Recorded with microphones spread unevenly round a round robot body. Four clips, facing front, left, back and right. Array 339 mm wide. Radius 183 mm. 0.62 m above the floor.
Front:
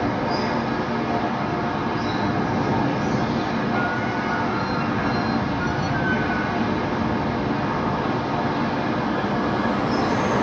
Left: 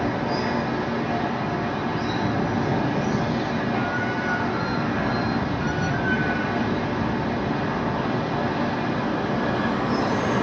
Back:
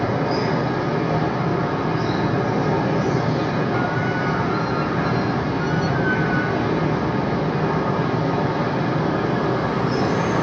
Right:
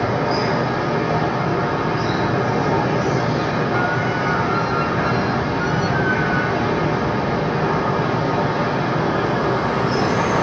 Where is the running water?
140° right, 0.8 m.